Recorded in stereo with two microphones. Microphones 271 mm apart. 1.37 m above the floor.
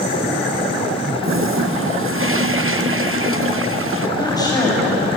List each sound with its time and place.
1.2 s a toilet flushing: 50° right (ahead or behind), 0.8 m
4.2 s a woman speaking: 15° left (ahead or behind), 7 m